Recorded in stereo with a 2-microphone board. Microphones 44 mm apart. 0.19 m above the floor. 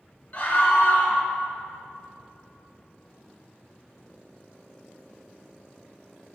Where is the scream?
30° left (ahead or behind), 2 m.